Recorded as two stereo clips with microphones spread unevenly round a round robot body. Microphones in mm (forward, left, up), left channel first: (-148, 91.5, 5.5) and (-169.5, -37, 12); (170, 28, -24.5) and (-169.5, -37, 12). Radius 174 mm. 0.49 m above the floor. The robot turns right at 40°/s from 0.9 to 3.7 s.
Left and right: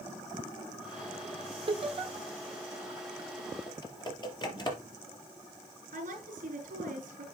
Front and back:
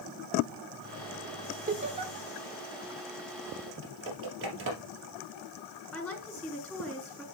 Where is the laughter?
110° right, 1.7 m; by 2.1 s 90° right, 1.7 m.